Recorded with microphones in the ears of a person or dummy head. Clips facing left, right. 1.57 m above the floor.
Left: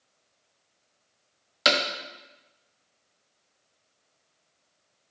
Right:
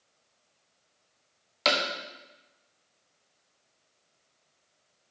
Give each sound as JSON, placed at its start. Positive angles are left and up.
{"t": 1.6, "sound": "hammering", "side_deg": 15, "distance_m": 0.9}